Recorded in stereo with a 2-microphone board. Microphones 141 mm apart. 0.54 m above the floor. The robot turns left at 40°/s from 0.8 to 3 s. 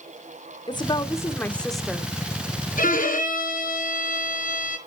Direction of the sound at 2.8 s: 75° left (ahead or behind).